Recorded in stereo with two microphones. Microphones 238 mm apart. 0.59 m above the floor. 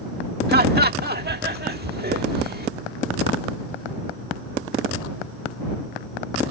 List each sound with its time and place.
0.5 s laughter: 40° right (ahead or behind)